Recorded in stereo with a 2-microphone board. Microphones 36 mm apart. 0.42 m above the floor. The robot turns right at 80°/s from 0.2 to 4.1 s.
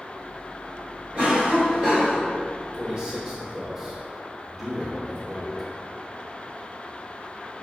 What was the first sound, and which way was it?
A cough, 120° right.